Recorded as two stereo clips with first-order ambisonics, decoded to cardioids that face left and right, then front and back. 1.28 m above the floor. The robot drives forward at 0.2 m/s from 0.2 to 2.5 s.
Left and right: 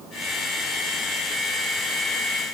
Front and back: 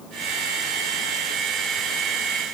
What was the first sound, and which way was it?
Only background noise.